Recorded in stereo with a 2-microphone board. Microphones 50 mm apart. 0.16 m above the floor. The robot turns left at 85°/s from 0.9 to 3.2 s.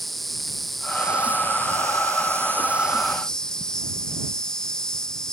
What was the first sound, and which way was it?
An insect, straight ahead.